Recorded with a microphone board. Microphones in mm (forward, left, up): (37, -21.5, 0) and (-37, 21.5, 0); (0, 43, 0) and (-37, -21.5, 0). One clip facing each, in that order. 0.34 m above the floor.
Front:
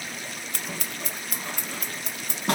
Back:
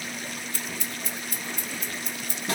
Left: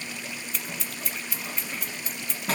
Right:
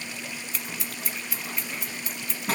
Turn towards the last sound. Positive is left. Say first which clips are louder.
# even, even
turn(degrees=-30)